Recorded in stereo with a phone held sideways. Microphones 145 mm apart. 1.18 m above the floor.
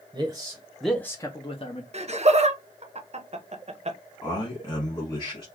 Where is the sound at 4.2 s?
30° left (ahead or behind), 1.3 m.